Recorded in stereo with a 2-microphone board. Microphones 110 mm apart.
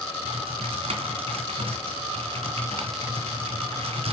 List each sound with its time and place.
0.2 s typing on a keyboard: 70° right (ahead or behind), 2.5 m